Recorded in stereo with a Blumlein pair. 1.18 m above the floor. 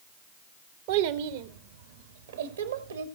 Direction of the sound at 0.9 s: 45° right.